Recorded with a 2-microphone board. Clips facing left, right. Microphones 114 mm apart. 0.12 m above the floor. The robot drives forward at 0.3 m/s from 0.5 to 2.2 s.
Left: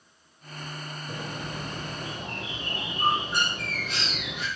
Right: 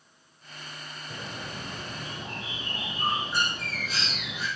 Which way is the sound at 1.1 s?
60° left (ahead or behind).